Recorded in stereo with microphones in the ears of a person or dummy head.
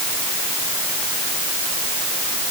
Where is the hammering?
No hammering in this recording.